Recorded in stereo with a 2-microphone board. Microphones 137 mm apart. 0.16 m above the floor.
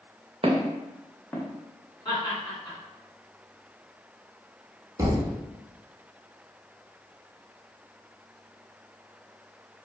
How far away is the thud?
About 0.7 m.